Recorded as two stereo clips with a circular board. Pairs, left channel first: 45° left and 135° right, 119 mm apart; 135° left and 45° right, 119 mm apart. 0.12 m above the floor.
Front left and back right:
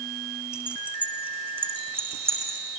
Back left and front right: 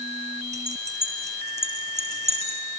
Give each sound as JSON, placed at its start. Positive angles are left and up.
{"t": 0.5, "sound": "keys jangling", "azimuth_deg": -50, "distance_m": 4.5}